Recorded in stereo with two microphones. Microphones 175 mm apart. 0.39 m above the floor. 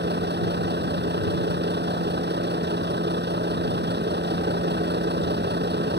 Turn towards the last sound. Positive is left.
turn(degrees=-75)  # may be behind; listen again after turning